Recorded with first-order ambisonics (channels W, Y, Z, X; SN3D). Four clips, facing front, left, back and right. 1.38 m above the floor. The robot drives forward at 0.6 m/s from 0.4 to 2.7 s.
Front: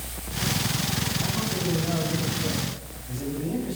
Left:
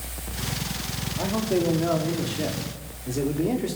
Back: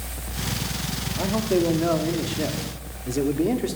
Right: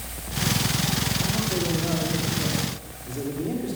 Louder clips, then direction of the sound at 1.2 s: Left 1 dB, back 6 dB; 155° left.